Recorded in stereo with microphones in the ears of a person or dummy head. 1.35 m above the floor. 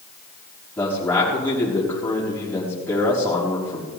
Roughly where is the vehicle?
No vehicle in this recording.